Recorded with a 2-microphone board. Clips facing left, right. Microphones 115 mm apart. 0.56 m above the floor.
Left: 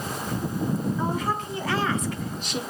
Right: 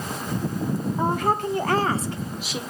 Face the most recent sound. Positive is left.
turn(degrees=5)  # may be behind; listen again after turning